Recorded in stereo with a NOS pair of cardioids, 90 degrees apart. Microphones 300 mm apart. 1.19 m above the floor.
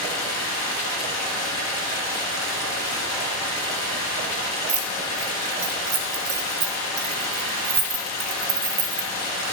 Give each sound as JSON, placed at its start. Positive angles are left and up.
{"t": 0.0, "sound": "running water", "azimuth_deg": 60, "distance_m": 1.4}
{"t": 4.7, "sound": "keys jangling", "azimuth_deg": -50, "distance_m": 0.8}